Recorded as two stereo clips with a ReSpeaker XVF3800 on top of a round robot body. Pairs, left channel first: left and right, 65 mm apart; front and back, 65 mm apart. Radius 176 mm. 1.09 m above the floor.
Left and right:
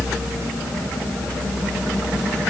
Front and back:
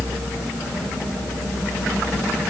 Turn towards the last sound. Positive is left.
No sound to turn to.